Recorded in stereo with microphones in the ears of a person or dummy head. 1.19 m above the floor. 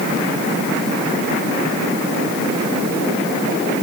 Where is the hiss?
No hiss in this recording.